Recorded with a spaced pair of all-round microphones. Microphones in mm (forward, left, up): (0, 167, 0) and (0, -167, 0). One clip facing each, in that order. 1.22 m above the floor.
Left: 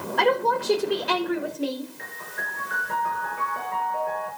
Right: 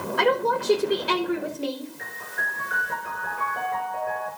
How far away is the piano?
About 6 m.